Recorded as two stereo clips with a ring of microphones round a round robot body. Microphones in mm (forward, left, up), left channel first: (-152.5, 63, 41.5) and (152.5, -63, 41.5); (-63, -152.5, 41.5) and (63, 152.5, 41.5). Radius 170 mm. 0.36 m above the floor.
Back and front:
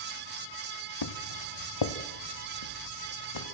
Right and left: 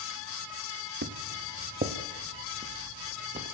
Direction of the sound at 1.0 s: 130° left.